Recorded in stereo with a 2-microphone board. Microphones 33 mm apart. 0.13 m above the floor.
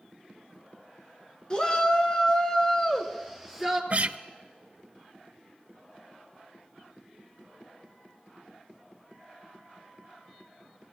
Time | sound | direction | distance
1.5 | a shout | 30° left (ahead or behind) | 1.6 m
3.9 | a guitar | 45° right (ahead or behind) | 0.5 m